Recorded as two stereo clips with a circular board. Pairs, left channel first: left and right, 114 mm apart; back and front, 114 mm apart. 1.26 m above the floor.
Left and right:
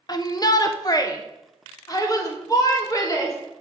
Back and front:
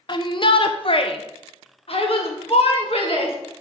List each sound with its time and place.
0.1 s a shout: 140° left, 0.7 m; by 3.4 s 150° left, 2.5 m